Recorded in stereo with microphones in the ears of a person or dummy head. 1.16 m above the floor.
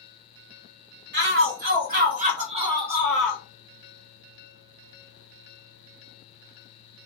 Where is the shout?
60° right (ahead or behind), 1.9 m; by 3.4 s 10° left (ahead or behind), 0.9 m.